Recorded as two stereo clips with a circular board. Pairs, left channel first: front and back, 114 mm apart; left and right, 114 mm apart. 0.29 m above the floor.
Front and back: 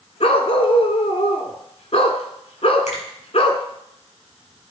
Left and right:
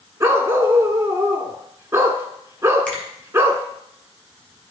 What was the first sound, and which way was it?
A dog barking, 25° right.